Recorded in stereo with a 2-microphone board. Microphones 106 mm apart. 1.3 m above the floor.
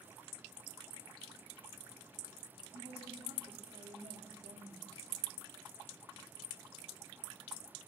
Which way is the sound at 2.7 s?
75° right (ahead or behind).